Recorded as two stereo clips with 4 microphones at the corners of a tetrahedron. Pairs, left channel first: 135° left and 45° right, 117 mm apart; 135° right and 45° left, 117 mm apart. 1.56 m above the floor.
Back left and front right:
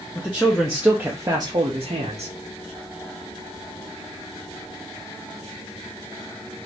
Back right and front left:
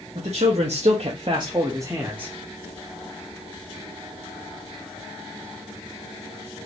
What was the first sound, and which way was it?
A man speaking, 60° left.